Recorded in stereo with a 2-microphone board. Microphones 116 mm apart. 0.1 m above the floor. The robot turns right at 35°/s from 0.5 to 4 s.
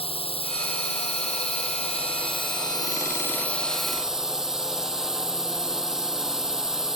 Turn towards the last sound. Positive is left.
turn(degrees=-175)